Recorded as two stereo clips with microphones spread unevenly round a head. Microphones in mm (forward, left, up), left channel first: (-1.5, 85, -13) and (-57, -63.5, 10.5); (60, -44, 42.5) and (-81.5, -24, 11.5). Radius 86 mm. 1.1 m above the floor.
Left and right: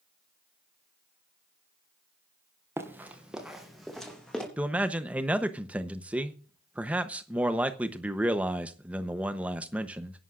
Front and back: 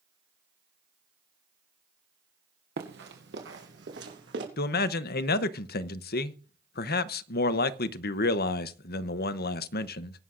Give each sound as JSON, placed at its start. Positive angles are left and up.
{"t": 2.8, "sound": "running footsteps", "azimuth_deg": 180, "distance_m": 2.0}
{"t": 4.6, "sound": "a man speaking", "azimuth_deg": -25, "distance_m": 0.8}